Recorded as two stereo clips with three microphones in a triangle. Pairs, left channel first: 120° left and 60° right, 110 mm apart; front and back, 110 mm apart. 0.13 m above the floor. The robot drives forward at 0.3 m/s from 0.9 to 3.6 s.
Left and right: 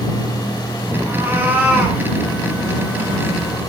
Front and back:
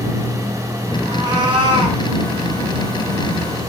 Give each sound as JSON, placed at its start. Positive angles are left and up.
{"t": 1.1, "sound": "a cat meowing", "azimuth_deg": -130, "distance_m": 1.6}